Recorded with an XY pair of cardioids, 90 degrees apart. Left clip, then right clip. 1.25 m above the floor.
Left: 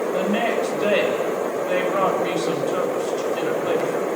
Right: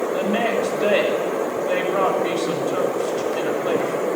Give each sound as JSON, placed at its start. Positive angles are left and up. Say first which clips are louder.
{"t": 0.1, "sound": "a woman speaking", "louder": "right 1 dB", "azimuth_deg": 0, "distance_m": 7.5}